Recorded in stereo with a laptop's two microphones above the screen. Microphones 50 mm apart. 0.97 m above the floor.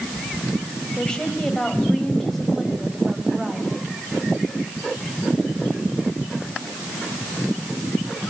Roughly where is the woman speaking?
Centre.